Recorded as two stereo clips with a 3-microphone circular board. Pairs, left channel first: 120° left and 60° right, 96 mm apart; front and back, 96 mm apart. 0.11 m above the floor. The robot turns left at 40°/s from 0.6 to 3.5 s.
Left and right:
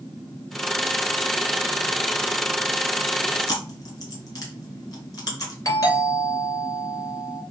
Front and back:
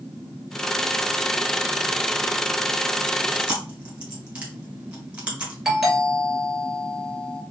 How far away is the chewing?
About 1.6 m.